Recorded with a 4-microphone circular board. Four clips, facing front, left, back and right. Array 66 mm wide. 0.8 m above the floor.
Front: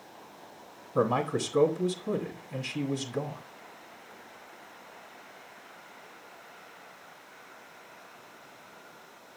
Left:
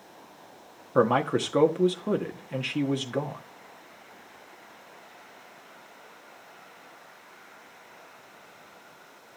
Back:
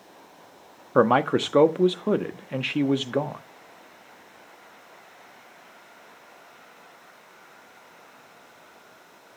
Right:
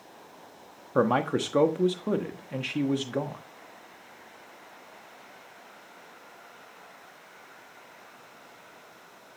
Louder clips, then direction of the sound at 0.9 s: Left 2 dB, back 8 dB; 175° left.